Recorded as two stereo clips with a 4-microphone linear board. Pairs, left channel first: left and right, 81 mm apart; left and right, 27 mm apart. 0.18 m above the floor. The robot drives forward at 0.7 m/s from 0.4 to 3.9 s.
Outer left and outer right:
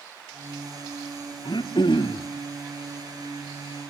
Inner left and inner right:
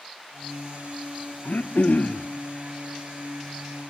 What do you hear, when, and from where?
1.4 s throat clearing: 70° left (ahead or behind), 1.3 m; by 2.3 s 75° left (ahead or behind), 1.2 m